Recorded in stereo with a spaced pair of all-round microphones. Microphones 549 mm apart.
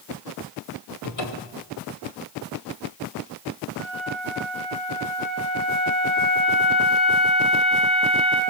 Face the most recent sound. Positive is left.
turn(degrees=60)  # may be behind; listen again after turning